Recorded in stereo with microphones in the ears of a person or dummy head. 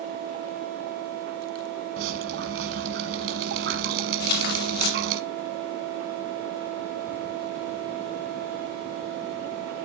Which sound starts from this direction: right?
Dripping, at 2.0 s.